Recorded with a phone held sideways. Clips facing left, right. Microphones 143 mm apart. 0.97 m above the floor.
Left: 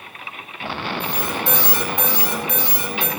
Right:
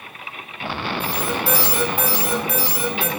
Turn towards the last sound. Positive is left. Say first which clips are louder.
# right 2 dB
turn(degrees=-5)  # may be behind; listen again after turning